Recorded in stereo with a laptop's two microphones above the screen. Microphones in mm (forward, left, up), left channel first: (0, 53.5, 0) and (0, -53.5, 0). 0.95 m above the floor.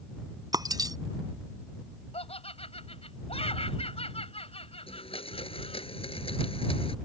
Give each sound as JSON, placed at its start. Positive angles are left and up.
{"t": 0.5, "sound": "breaking glass", "side_deg": -40}
{"t": 2.1, "sound": "laughter", "side_deg": 70}
{"t": 4.9, "sound": "a blender", "side_deg": 60}